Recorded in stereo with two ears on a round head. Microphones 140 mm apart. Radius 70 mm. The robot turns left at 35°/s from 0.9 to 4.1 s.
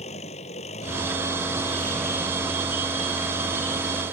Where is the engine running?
45° left; by 4.1 s 70° right.